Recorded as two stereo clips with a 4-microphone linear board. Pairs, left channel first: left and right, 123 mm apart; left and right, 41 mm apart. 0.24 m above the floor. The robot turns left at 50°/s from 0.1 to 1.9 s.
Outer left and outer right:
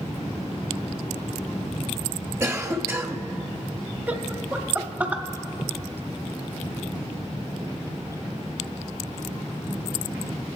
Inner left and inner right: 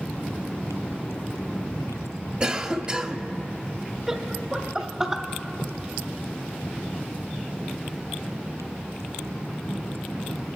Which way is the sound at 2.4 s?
25° right (ahead or behind).